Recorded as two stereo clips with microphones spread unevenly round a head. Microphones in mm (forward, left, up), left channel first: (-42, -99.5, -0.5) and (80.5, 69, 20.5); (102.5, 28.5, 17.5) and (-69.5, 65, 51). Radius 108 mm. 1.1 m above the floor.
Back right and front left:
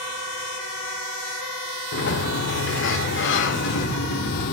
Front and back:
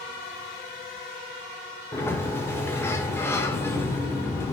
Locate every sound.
1.9 s a sliding door: 95° right, 1.2 m